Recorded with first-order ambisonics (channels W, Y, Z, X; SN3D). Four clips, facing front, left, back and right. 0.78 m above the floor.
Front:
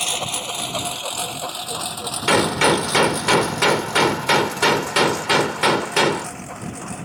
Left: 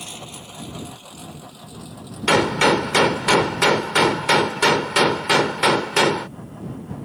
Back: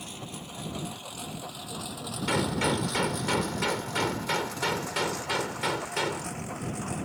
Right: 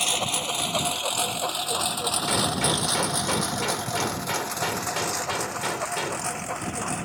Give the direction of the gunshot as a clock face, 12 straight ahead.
10 o'clock.